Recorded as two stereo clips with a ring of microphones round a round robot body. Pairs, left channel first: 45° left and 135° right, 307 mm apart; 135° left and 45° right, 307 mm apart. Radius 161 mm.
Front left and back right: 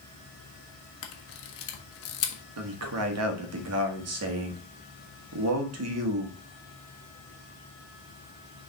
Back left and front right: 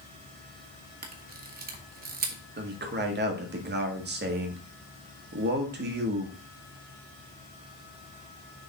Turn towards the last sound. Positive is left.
turn(degrees=-100)